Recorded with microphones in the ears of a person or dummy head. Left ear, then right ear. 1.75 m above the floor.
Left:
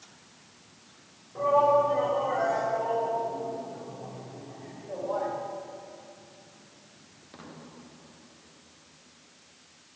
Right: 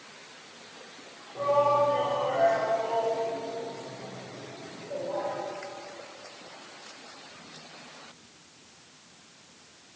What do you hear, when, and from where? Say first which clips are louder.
1.4 s a shout: left 2 dB; 5° left (ahead or behind), 7.5 m; by 5.3 s 30° left (ahead or behind), 4.5 m